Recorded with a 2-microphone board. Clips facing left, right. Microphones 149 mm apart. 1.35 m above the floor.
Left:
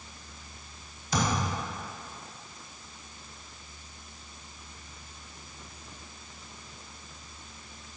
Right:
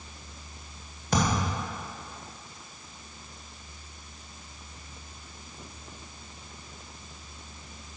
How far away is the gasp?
No gasp in this recording.